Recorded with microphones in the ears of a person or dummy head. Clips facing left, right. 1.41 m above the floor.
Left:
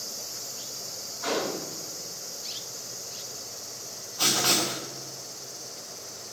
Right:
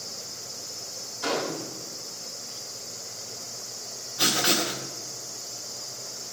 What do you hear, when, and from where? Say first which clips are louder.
1.2 s a gunshot: even; 50° right (ahead or behind), 3.5 m
4.2 s writing: right 1 dB; 25° right (ahead or behind), 0.8 m